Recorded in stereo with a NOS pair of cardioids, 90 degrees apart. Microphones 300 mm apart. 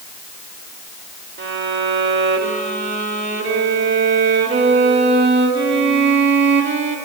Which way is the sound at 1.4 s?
40° right.